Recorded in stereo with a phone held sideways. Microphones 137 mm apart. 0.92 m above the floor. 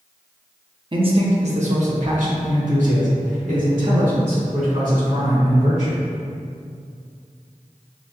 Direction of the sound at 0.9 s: 35° right (ahead or behind).